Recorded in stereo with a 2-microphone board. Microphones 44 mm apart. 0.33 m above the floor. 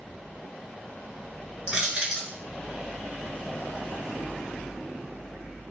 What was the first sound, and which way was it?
Crushing, 20° right (ahead or behind).